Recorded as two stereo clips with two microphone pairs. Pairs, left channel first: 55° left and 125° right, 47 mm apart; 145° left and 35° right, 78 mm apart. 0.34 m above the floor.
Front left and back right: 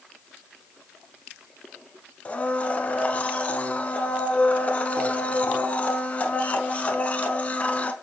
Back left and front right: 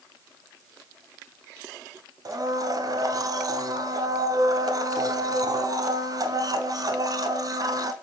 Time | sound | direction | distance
2.2 | a blender | straight ahead | 0.6 m